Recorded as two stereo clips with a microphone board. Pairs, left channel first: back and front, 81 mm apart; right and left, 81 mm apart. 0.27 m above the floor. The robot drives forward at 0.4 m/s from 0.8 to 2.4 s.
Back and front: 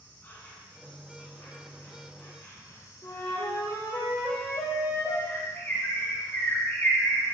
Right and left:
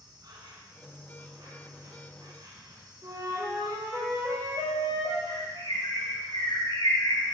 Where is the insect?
115° left, 3 m; by 7.3 s 125° left, 3.5 m.